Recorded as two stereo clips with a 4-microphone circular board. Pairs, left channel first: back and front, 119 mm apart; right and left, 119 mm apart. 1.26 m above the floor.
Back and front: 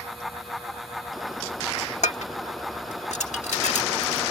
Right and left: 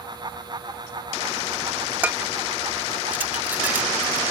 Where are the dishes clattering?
165° left.